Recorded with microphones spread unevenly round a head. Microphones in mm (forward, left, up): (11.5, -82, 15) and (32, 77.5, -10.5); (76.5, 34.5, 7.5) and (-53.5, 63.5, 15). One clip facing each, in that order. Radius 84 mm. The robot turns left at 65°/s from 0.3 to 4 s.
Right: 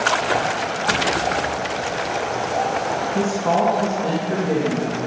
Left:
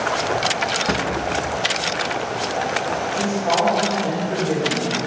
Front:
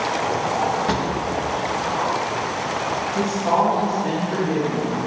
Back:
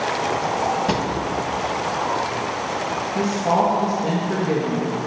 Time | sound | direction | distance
0.9 | a drawer | 125° left | 0.9 m
3.1 | a woman speaking | 110° right | 2 m